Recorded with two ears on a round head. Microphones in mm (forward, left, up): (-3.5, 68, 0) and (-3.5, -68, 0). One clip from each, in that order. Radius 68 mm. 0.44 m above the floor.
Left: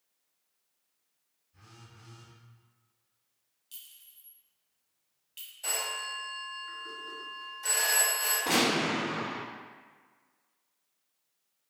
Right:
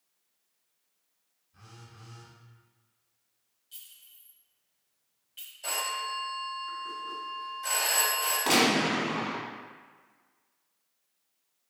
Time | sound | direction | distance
1.5 | a phone buzzing | 45° right (ahead or behind) | 1.5 m
3.7 | a clink | 40° left (ahead or behind) | 1.4 m
5.6 | a phone ringing | 10° left (ahead or behind) | 1.2 m
8.5 | a gunshot | 50° right (ahead or behind) | 1.2 m